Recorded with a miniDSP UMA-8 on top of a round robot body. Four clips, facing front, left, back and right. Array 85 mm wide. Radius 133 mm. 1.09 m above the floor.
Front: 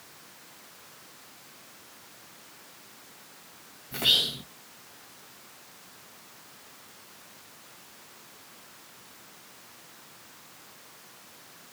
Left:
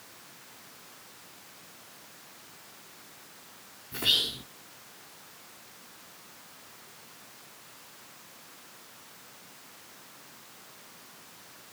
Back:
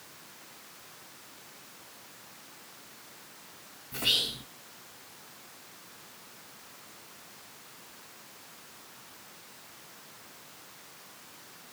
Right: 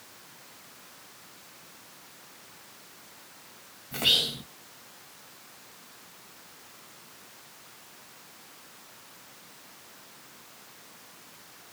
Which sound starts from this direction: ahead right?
Whispering, at 3.9 s.